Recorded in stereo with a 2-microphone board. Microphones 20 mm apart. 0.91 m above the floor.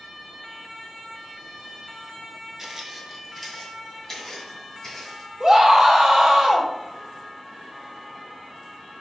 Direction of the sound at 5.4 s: 45° right (ahead or behind).